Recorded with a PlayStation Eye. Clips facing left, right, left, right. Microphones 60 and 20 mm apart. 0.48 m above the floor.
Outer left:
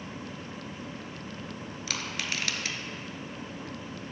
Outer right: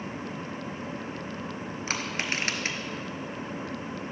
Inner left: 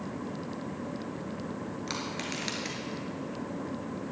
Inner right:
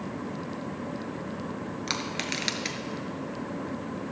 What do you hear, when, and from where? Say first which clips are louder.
1.9 s crushing: outer right 3 dB, inner right 5 dB; 40° right (ahead or behind), 1.1 m